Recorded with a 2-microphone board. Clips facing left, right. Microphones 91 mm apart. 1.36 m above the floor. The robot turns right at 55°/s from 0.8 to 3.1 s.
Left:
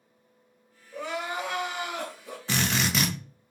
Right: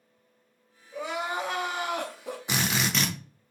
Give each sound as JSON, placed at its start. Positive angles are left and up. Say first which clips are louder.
{"t": 0.9, "sound": "crying", "louder": "right 1 dB", "azimuth_deg": -175, "distance_m": 0.7}
{"t": 2.5, "sound": "a drill", "louder": "left 1 dB", "azimuth_deg": -25, "distance_m": 0.5}